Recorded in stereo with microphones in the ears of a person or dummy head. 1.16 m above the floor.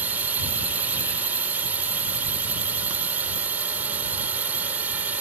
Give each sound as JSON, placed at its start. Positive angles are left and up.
{"t": 0.0, "sound": "a drone", "side_deg": -5}